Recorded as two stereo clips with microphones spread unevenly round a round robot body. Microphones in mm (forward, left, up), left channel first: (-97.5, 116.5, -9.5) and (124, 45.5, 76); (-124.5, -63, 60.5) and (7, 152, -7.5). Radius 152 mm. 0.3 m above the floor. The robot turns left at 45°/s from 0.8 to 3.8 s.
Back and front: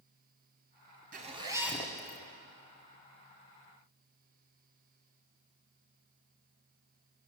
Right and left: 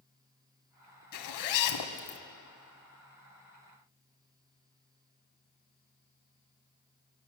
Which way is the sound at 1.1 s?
85° right.